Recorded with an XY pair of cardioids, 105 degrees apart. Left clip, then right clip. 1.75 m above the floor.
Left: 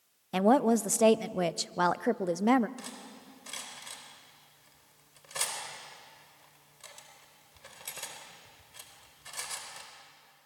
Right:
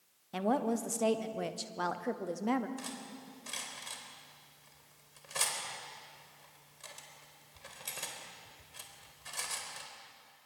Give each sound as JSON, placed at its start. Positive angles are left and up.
{"t": 0.3, "sound": "a woman speaking", "azimuth_deg": 50, "distance_m": 0.7}
{"t": 2.8, "sound": "cutlery clinking", "azimuth_deg": 0, "distance_m": 4.0}